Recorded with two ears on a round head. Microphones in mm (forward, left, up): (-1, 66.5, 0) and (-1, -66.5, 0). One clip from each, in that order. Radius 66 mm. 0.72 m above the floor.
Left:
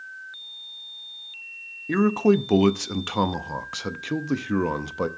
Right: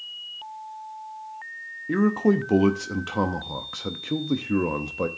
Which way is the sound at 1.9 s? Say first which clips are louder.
Left 2 dB; 30° left (ahead or behind).